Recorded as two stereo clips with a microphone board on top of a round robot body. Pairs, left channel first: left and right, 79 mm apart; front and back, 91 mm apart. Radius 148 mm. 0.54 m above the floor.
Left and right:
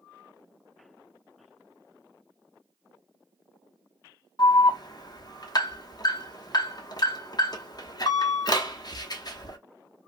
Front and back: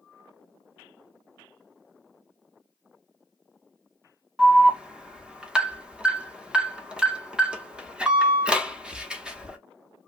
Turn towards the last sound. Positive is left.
turn(degrees=100)